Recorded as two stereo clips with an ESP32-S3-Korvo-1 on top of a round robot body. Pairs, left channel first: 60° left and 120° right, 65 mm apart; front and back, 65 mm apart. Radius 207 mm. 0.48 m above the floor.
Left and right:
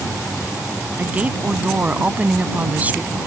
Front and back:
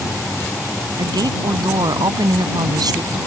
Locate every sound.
1.0 s a woman speaking: 175° left